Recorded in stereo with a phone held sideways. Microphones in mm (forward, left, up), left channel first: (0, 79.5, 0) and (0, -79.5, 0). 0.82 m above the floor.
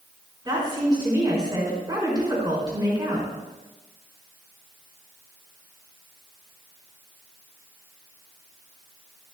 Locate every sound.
0.5 s a woman speaking: 25° right (ahead or behind), 4 m